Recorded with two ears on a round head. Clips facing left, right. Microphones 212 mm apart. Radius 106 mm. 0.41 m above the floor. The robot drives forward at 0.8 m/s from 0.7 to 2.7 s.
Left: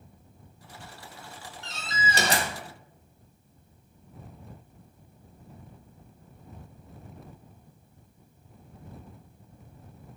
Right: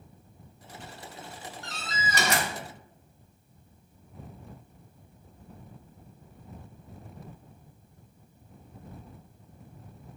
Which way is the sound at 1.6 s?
20° left (ahead or behind).